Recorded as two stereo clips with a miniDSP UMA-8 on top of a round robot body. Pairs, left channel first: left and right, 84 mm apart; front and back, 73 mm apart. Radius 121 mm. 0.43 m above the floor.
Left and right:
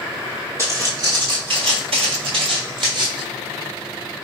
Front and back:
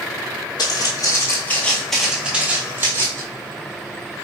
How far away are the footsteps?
About 1.0 m.